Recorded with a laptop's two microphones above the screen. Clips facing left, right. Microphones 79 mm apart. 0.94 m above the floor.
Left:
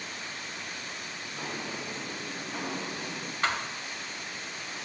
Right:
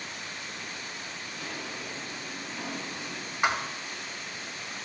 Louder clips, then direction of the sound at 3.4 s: Right 3 dB; 15° right (ahead or behind).